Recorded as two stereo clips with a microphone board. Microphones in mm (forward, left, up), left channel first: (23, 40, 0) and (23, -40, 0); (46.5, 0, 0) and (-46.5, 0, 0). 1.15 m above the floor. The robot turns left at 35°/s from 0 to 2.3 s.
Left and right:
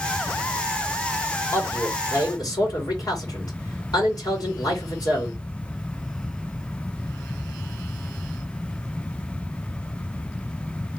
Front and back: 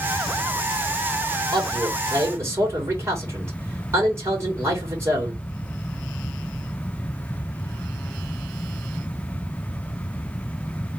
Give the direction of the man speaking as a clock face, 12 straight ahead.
7 o'clock.